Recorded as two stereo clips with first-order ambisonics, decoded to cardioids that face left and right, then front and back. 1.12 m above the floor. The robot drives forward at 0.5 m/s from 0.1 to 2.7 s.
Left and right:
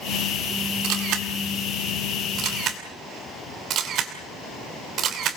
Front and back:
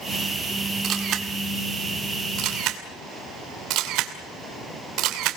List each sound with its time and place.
0.8 s a camera shutter: 125° right, 1.7 m; by 5.4 s 145° right, 2.5 m